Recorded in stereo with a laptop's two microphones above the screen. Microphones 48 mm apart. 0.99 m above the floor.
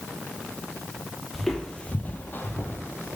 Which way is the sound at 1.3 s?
Centre (ahead or behind).